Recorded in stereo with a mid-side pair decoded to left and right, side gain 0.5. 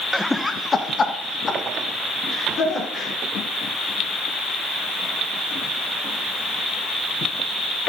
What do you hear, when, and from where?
0.1 s laughter: 5° right, 0.8 m; by 3.1 s 50° left, 5 m